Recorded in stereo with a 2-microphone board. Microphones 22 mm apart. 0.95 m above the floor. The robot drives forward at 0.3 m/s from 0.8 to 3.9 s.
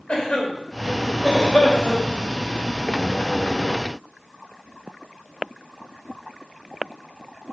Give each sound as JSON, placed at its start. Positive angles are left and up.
{"t": 0.1, "sound": "a cough", "side_deg": 60, "distance_m": 4.0}